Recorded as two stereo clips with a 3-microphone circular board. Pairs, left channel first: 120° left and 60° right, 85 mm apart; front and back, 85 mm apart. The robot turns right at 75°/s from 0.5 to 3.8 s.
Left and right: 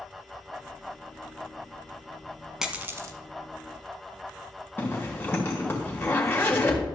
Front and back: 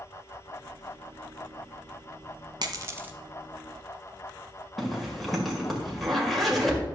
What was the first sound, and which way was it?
A dropped coin, 140° right.